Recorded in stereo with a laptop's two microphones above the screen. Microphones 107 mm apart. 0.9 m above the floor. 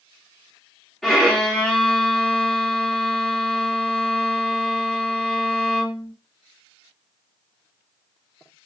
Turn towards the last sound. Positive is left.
turn(degrees=5)  # may be behind; listen again after turning